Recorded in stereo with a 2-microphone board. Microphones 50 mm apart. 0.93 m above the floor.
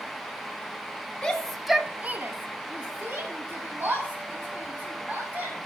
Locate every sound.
1.2 s a shout: 20° left (ahead or behind), 1.6 m; by 5.6 s 50° right (ahead or behind), 5.5 m